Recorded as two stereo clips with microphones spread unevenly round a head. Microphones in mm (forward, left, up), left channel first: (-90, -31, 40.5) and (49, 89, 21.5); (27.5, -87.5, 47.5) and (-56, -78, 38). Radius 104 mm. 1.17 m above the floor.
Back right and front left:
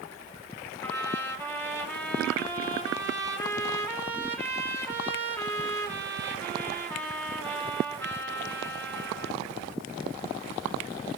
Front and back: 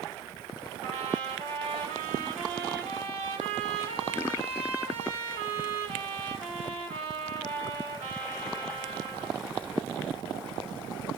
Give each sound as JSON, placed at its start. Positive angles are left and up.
{"t": 0.8, "sound": "a trumpet", "azimuth_deg": 140, "distance_m": 2.5}